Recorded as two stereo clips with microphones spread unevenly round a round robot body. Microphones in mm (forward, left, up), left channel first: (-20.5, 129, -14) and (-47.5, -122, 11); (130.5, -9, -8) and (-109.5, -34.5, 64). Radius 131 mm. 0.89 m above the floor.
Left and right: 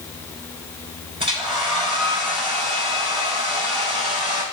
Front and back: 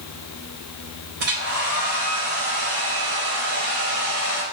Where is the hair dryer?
165° right, 2.5 m.